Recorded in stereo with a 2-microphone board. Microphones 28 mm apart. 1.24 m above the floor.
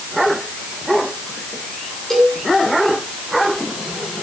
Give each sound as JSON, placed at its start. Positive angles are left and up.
{"t": 2.1, "sound": "a cowbell", "side_deg": 20, "distance_m": 9.5}